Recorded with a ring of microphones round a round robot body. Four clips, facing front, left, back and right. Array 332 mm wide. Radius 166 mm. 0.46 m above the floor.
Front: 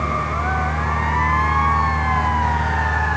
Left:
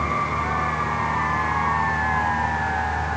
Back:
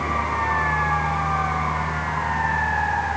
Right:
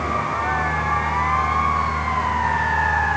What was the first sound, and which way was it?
Only background noise.